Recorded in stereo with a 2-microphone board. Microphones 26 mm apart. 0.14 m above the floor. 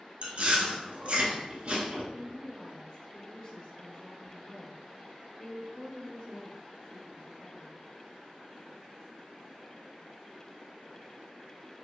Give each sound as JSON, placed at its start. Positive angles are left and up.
{"t": 0.2, "sound": "chewing", "side_deg": -45, "distance_m": 0.7}
{"t": 2.1, "sound": "a woman speaking", "side_deg": 20, "distance_m": 1.6}